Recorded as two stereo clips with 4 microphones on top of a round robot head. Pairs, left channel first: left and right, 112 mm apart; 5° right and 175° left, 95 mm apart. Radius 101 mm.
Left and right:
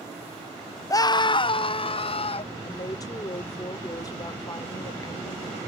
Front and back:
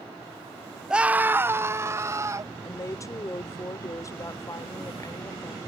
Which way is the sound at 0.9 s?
100° left.